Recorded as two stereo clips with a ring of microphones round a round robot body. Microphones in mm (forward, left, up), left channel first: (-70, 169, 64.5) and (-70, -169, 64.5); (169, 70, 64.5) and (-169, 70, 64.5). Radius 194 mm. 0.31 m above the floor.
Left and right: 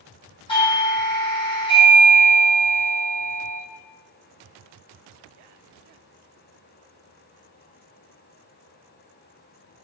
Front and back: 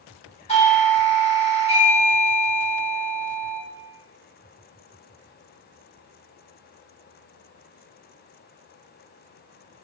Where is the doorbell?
40° left, 1.8 m.